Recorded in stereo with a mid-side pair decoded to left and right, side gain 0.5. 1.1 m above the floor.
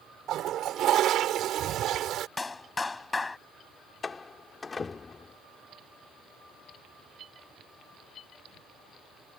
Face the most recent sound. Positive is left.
turn(degrees=30)